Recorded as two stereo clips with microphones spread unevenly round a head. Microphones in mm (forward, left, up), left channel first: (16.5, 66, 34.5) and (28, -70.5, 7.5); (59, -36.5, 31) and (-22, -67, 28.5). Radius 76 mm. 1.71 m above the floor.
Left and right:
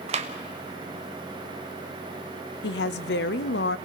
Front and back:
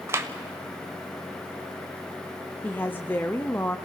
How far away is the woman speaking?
About 0.7 m.